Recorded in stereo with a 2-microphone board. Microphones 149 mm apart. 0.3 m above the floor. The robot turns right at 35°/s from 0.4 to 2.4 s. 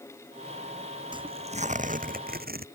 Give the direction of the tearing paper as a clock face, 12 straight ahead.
5 o'clock.